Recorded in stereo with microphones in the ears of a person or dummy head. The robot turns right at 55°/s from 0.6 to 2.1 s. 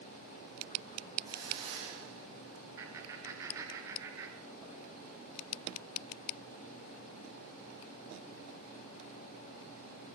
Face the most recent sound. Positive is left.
turn(degrees=-20)  # may be behind; listen again after turning